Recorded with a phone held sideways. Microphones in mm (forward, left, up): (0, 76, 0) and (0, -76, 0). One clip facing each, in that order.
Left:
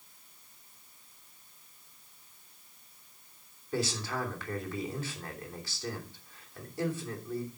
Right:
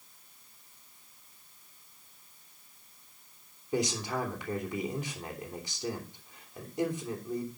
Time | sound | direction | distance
3.7 | a man speaking | 15° right (ahead or behind) | 3 m